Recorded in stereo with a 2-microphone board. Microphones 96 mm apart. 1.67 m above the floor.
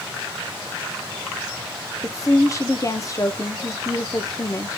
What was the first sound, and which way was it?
A woman speaking, 35° left (ahead or behind).